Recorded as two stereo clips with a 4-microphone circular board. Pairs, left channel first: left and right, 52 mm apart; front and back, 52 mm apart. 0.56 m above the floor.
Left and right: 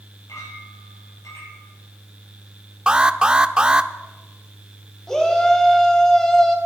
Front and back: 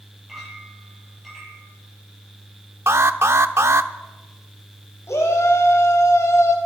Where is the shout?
10° left, 3.5 m.